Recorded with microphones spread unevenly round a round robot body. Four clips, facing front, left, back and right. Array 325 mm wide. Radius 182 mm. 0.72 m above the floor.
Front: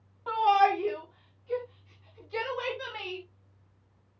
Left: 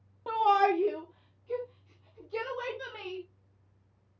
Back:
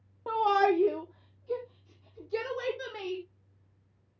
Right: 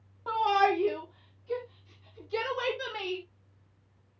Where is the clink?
No clink in this recording.